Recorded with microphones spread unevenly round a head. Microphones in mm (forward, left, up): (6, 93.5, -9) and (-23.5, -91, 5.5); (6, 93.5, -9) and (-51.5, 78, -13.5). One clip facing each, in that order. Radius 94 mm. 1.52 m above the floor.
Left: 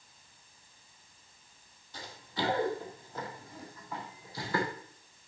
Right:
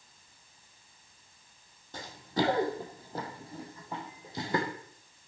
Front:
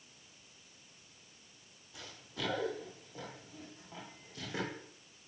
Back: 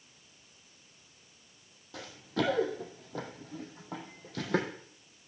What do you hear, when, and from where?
1.9 s running footsteps: 140° right, 3.5 m; by 4.7 s 170° right, 3.5 m